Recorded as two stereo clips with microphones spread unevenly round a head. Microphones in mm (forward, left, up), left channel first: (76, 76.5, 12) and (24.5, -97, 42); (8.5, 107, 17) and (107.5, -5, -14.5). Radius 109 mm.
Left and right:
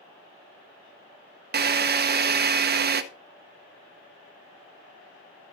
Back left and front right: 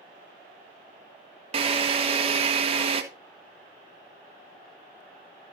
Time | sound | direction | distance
1.5 | a drill | 80° right | 1.1 m